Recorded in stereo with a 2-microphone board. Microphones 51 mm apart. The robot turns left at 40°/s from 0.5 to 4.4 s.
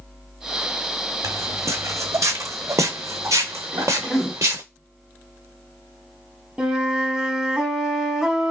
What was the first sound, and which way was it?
Footsteps, 75° right (ahead or behind).